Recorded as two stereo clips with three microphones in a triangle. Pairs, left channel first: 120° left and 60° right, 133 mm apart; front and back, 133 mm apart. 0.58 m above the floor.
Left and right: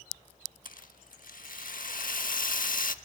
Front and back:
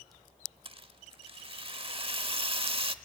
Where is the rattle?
130° left, 0.7 m.